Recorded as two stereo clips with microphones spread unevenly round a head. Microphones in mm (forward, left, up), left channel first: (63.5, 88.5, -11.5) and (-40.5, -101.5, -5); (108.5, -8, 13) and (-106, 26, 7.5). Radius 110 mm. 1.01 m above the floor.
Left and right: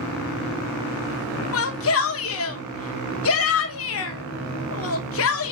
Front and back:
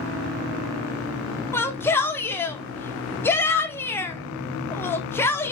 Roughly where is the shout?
Left.